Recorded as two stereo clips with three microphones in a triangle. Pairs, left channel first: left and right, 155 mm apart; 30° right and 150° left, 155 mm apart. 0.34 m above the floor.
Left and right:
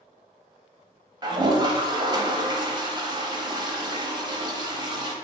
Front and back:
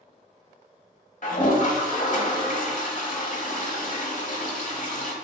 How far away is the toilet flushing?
About 1.2 m.